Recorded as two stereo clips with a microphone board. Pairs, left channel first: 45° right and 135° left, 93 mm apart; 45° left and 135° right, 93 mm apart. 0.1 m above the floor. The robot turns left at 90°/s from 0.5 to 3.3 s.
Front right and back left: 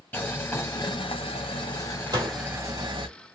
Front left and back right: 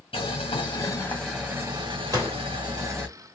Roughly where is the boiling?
Ahead left.